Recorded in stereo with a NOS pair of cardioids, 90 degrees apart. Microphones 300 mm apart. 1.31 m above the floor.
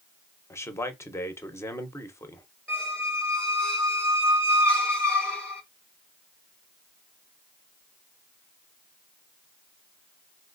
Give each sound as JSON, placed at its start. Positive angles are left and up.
{"t": 0.5, "sound": "a man speaking", "azimuth_deg": 10, "distance_m": 0.7}
{"t": 2.7, "sound": "a squeak", "azimuth_deg": 5, "distance_m": 0.9}